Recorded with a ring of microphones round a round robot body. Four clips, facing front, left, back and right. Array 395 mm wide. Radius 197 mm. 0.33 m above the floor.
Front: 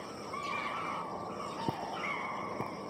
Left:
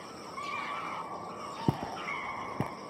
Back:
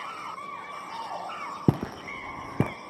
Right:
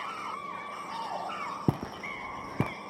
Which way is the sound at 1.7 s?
Straight behind.